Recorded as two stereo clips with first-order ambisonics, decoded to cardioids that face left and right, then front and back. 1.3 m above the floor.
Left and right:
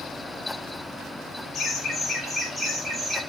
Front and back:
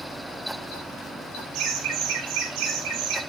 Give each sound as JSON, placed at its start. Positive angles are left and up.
{"t": 1.5, "sound": "laughter", "azimuth_deg": 150, "distance_m": 2.5}